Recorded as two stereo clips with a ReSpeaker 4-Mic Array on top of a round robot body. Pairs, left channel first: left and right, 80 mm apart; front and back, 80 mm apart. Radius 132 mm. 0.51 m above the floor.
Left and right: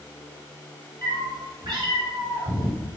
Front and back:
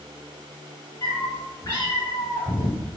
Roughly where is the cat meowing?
Ahead right.